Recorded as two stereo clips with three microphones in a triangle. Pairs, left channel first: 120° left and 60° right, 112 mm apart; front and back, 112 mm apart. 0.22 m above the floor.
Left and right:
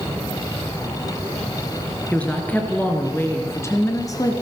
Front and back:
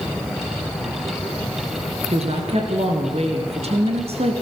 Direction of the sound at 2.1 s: 160° right.